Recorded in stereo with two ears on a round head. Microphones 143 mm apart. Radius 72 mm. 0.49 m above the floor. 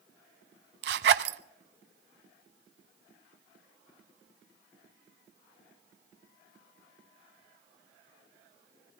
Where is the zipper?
70° right (ahead or behind), 0.8 m.